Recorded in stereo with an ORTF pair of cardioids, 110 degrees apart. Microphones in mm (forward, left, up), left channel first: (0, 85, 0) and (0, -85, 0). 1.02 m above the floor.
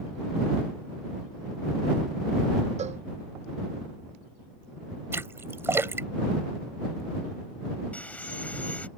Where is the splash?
15° right.